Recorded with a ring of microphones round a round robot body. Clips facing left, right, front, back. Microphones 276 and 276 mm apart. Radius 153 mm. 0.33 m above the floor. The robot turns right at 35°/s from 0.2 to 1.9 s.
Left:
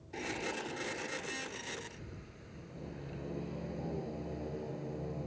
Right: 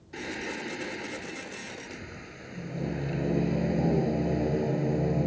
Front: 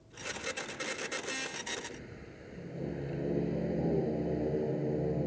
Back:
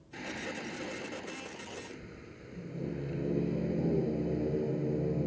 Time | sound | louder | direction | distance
0.1 | singing | right 4 dB, back 2 dB | 160° right | ?